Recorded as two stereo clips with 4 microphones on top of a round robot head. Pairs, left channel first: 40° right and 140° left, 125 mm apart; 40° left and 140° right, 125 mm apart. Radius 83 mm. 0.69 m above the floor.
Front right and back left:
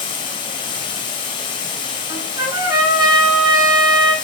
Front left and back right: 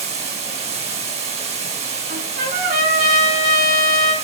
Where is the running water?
100° right, 1.7 m.